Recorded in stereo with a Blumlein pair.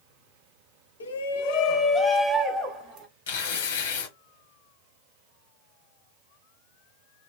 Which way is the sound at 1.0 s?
70° left.